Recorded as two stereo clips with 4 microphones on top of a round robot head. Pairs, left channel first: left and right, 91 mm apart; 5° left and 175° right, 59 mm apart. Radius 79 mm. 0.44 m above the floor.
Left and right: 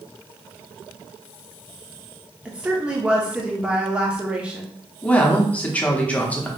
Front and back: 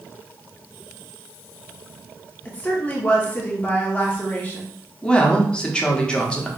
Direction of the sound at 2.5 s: 30° right.